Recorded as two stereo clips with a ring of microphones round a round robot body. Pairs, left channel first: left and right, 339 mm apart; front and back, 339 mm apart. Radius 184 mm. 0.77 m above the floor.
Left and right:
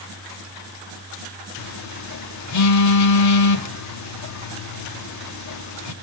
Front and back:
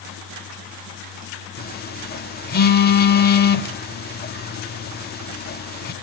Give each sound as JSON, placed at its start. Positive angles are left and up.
{"t": 1.6, "sound": "a phone buzzing", "azimuth_deg": 60, "distance_m": 2.0}